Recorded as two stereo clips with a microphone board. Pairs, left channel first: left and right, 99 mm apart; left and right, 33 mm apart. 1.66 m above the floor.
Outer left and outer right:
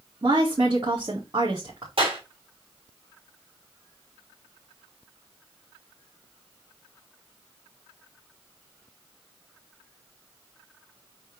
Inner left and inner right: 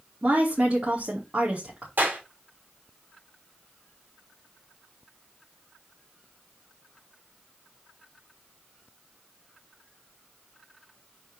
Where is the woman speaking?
50° right (ahead or behind), 2.5 m.